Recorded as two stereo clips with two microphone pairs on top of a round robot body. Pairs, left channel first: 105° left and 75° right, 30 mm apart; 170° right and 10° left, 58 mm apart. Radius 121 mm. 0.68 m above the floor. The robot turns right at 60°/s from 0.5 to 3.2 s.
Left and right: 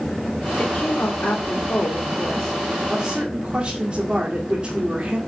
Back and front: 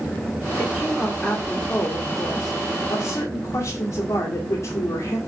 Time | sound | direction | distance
0.6 | a woman speaking | 70° left | 2.5 m